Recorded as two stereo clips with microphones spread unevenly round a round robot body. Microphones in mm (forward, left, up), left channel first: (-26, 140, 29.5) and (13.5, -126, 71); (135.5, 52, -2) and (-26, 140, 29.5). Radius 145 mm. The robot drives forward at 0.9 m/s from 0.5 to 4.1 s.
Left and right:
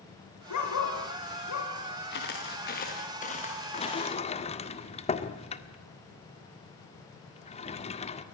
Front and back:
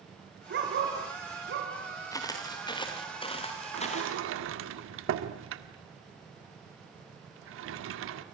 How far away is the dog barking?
About 4.5 m.